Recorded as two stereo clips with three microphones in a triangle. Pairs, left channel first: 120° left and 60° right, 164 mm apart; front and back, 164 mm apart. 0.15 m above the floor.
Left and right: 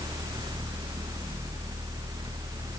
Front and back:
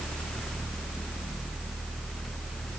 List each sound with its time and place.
Only background noise.